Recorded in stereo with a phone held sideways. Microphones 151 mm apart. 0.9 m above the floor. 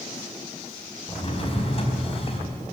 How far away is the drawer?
About 4.5 m.